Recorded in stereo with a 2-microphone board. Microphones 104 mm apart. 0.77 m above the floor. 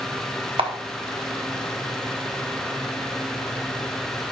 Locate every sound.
0.6 s a camera shutter: 65° right (ahead or behind), 0.9 m